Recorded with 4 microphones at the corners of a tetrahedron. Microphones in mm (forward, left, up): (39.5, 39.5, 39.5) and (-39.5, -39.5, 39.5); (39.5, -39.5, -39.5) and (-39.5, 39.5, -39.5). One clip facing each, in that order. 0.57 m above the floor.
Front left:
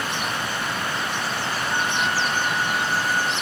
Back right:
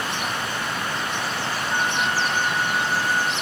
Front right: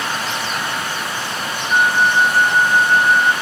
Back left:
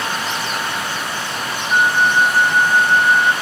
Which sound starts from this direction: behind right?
A flute, at 1.7 s.